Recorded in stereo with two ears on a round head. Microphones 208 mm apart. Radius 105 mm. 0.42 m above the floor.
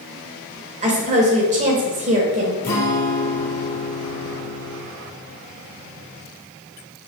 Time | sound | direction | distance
0.8 | a woman speaking | 35° right (ahead or behind) | 1.6 m
2.6 | a guitar | 40° left (ahead or behind) | 3 m